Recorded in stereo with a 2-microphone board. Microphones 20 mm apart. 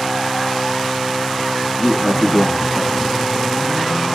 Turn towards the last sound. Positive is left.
turn(degrees=-25)  # may be behind; listen again after turning